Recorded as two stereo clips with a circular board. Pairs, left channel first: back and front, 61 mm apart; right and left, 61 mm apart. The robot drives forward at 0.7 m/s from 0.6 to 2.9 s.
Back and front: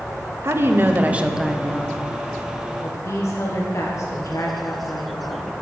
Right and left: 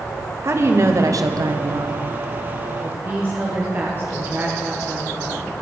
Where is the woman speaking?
45° left, 1.0 m; by 5.5 s 145° left, 1.2 m.